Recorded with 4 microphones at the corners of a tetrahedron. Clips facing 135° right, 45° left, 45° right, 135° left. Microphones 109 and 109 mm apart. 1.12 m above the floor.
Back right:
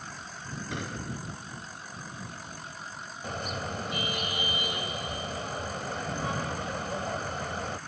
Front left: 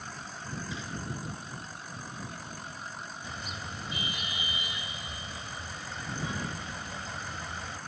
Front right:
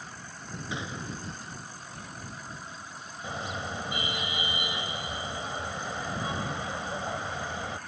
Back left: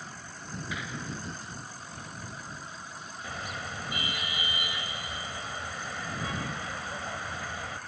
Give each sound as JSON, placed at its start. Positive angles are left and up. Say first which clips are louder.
{"t": 0.7, "sound": "a gunshot", "louder": "back right 2 dB, front right 2 dB", "azimuth_deg": -110}
{"t": 3.2, "sound": "a car horn", "louder": "back right 10 dB, front right 4 dB", "azimuth_deg": -110}